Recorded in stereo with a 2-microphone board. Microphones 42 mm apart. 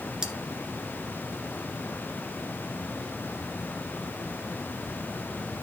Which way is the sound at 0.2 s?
20° right (ahead or behind).